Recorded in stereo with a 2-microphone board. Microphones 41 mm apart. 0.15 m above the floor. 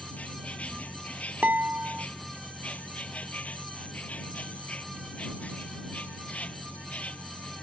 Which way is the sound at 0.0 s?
40° left (ahead or behind).